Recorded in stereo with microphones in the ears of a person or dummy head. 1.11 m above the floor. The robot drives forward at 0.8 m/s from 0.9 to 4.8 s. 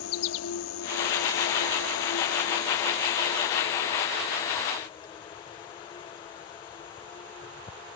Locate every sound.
0.0 s an insect: 80° left; by 8.0 s 30° left (ahead or behind)